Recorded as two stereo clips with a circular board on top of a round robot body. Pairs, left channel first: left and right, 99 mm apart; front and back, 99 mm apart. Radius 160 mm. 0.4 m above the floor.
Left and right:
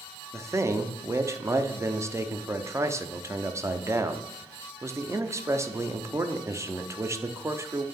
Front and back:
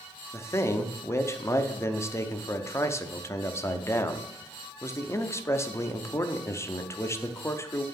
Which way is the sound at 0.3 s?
45° right.